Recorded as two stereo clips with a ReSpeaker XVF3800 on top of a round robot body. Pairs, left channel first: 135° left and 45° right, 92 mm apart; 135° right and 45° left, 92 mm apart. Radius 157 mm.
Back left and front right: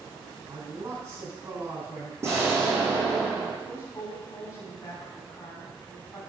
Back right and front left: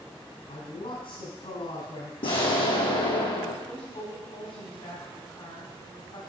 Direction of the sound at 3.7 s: 165° right.